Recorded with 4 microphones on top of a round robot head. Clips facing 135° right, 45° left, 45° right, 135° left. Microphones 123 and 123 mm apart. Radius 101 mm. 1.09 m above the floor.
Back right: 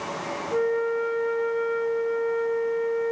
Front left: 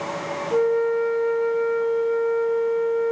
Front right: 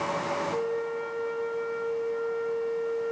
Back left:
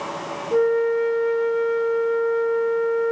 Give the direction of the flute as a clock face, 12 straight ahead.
8 o'clock.